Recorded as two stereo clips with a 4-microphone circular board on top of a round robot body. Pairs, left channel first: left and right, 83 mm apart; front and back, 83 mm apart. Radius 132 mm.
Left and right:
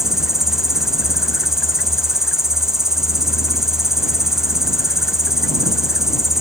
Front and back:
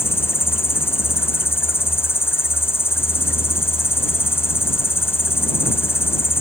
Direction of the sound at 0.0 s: 10° right.